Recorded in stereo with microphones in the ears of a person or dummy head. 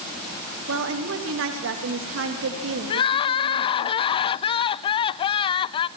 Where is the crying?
30° left (ahead or behind), 0.6 m.